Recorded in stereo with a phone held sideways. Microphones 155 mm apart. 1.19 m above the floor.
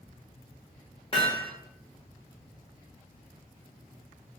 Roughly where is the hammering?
Left.